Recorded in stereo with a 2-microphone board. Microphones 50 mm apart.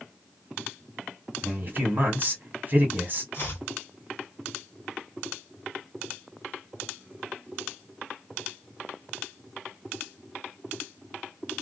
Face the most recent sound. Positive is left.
turn(degrees=45)  # may be behind; listen again after turning